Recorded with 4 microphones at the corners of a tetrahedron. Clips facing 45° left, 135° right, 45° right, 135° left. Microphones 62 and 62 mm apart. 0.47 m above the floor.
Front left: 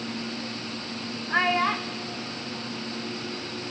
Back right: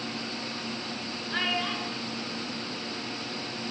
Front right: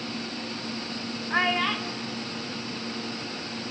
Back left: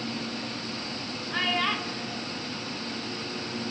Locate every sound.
1.3 s a child speaking: 5° right, 0.7 m; by 3.7 s 120° left, 3 m